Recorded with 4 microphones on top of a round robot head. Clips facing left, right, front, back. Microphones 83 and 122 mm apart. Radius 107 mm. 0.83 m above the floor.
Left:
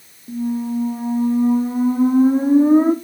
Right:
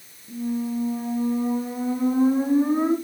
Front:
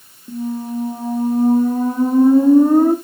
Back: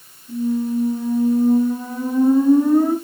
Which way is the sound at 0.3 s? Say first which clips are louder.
Left 4 dB, back 3 dB; 45° left.